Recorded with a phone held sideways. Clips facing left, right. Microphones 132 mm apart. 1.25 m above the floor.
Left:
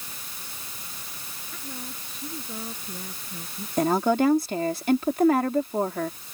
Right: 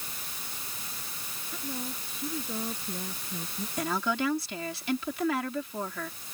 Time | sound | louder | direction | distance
1.5 | a woman speaking | right 3 dB | 10° right (ahead or behind) | ?
3.8 | a woman speaking | left 9 dB | 45° left (ahead or behind) | ?